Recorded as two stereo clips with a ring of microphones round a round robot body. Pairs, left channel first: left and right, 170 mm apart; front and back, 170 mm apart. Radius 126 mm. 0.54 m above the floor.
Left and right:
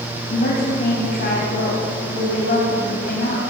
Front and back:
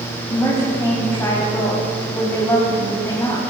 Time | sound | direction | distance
0.3 | a woman speaking | 75° left | 4 m